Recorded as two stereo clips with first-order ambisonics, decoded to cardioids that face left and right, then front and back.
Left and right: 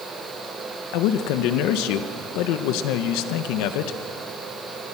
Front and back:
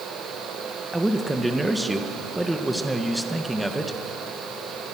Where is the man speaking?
90° left, 1.2 m.